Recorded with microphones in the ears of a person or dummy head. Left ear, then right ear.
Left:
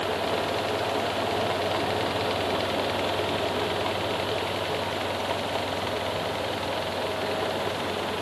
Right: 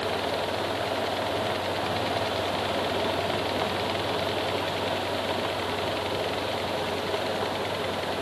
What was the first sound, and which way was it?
Only background noise.